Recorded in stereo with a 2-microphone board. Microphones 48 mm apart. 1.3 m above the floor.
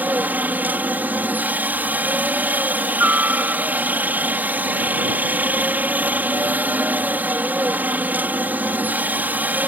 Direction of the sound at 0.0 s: 35° right (ahead or behind).